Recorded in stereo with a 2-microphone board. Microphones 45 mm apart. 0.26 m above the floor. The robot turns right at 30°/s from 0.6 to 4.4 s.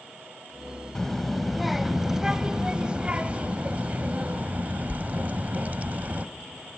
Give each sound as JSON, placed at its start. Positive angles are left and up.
{"t": 0.9, "sound": "a child speaking", "side_deg": 10, "distance_m": 0.6}